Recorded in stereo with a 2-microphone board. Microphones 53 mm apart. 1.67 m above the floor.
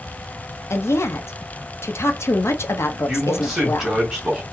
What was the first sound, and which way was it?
A woman speaking, 60° left (ahead or behind).